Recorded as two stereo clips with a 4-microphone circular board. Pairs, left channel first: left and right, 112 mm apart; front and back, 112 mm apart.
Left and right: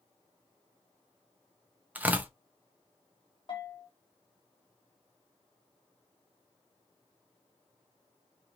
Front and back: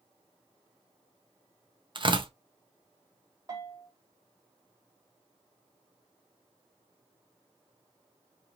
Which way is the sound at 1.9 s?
160° right.